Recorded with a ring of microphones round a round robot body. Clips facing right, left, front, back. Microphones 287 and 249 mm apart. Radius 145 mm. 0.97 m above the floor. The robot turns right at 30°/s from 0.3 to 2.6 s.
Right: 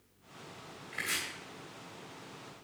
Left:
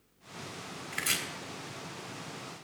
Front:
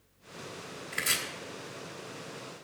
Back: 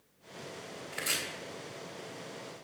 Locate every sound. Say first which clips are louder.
0.9 s chopping: left 3 dB, even; 55° left, 3 m; by 1.2 s 65° left, 3 m